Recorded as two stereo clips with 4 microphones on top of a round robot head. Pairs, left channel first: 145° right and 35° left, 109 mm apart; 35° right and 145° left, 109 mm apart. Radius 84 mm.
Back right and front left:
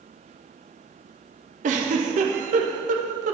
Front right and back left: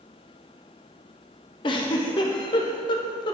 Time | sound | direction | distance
1.6 | a giggle | 15° left | 0.6 m